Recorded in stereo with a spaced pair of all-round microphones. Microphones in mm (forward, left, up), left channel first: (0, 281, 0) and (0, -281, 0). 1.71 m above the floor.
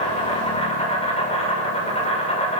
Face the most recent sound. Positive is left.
turn(degrees=10)  # may be behind; listen again after turning